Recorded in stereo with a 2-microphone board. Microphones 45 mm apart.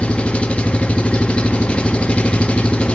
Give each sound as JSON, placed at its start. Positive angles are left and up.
{"t": 0.0, "sound": "an engine running", "side_deg": 25, "distance_m": 0.9}